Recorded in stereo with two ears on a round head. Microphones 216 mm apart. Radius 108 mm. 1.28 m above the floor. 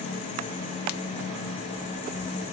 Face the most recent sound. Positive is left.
No sound to turn to.